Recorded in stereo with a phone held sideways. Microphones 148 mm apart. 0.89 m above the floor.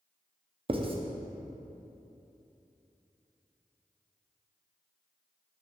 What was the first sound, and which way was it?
Writing, 40° right (ahead or behind).